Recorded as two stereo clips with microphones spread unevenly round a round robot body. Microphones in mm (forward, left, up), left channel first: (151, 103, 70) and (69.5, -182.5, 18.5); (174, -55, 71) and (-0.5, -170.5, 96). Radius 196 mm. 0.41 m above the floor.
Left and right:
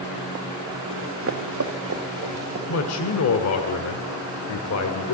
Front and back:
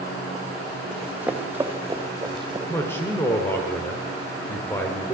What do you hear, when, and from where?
0.9 s running footsteps: 60° right, 3 m; by 2.6 s 80° right, 3.5 m
2.7 s a man speaking: 105° left, 1.5 m